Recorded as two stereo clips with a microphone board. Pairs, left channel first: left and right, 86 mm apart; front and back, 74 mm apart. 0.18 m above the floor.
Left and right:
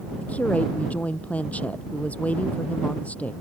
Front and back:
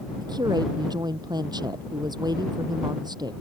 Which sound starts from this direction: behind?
A woman speaking, at 0.2 s.